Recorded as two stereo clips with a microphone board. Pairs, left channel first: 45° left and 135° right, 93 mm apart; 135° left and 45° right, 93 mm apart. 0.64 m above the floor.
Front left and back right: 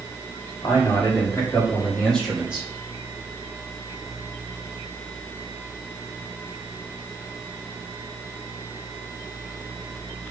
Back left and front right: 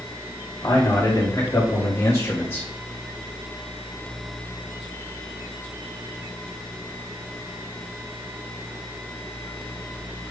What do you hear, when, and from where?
0.6 s a man speaking: 80° left, 2 m; by 2.7 s 175° right, 1.0 m